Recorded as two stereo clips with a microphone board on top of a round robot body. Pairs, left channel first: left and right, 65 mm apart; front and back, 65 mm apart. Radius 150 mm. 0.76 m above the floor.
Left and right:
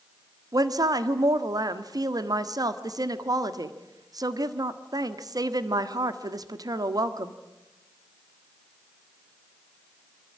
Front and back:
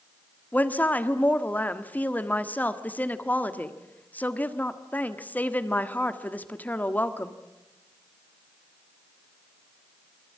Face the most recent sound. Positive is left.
turn(degrees=-65)